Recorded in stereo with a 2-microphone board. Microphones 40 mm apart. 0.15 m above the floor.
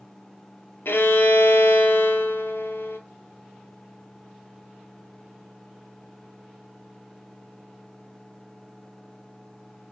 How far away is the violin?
About 0.5 m.